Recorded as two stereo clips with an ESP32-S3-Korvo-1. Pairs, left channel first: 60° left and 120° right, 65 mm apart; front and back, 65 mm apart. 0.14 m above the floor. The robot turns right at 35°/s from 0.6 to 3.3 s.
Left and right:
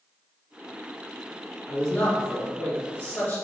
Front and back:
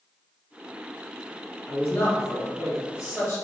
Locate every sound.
1.7 s a man speaking: 25° right, 2.0 m; by 3.4 s 30° left, 2.0 m